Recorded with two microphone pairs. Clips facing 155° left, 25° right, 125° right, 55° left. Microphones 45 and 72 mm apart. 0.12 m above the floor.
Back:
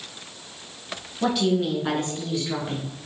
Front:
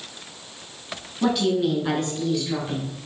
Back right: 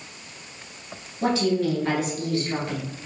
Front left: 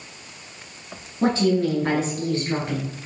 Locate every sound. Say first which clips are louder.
1.2 s a woman speaking: front 1 dB, front left 2 dB; 60° left, 1.5 m; by 3.1 s 110° left, 1.7 m